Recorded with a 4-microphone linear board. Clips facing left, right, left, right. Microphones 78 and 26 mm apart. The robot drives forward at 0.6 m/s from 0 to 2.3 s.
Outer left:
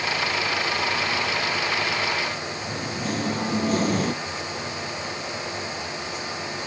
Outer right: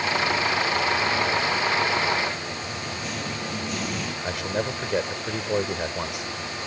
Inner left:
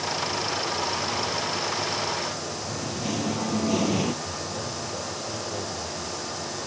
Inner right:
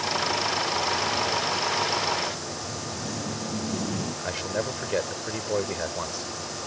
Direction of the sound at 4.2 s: 75° right (ahead or behind).